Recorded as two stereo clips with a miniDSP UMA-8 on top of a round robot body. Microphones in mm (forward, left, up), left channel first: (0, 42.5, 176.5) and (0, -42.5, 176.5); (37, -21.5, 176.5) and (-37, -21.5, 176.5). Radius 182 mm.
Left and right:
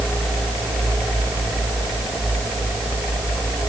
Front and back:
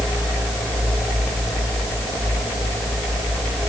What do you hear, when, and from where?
Only background noise.